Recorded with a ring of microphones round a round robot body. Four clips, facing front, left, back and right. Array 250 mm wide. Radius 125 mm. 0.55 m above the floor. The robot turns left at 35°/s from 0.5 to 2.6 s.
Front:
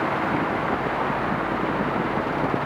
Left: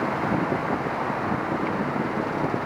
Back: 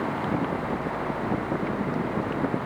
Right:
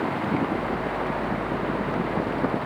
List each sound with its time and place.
Only background noise.